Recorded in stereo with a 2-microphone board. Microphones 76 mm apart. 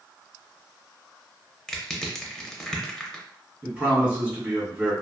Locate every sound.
1.7 s crushing: 5° left (ahead or behind), 0.6 m
3.6 s a man speaking: 15° right (ahead or behind), 1.8 m